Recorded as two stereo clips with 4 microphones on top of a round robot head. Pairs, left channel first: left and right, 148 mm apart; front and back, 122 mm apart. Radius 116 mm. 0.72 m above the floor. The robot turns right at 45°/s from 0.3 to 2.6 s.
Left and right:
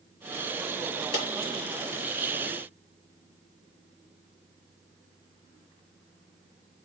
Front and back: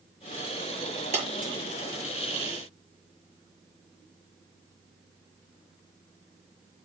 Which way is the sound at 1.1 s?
150° left.